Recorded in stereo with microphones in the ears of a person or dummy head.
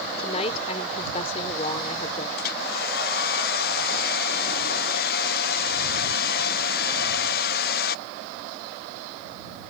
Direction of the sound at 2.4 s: 45° left (ahead or behind).